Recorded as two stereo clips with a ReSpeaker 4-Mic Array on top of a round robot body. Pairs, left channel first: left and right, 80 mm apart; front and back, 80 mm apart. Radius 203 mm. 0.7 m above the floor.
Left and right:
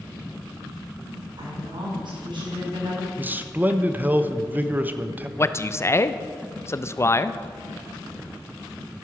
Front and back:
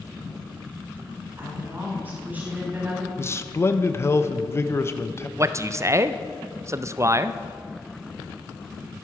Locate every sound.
1.4 s a woman speaking: 115° right, 6 m; by 3.1 s 105° right, 5 m
3.2 s a man speaking: 35° right, 1.2 m
5.4 s a man speaking: 135° left, 0.8 m